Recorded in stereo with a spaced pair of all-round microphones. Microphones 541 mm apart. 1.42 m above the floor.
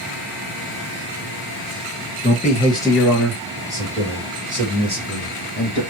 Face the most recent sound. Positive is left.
turn(degrees=-20)  # may be behind; listen again after turning